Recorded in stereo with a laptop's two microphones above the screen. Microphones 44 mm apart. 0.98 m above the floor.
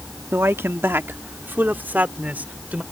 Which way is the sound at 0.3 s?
75° right (ahead or behind).